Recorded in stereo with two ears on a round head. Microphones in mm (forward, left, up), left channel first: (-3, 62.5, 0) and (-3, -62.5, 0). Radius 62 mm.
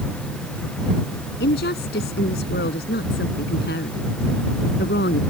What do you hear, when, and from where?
1.4 s a woman speaking: 80° left